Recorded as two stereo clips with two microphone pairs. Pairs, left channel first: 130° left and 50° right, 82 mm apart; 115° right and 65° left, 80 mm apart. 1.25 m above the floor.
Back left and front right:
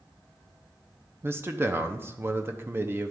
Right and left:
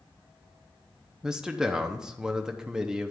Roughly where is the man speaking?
Ahead.